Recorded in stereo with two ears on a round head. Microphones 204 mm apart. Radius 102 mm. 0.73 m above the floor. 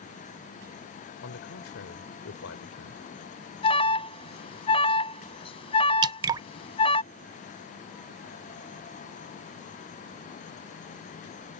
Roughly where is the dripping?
Centre.